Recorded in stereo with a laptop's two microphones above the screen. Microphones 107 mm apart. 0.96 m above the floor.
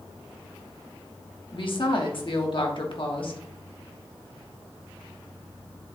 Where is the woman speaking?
55° left (ahead or behind), 1.2 m.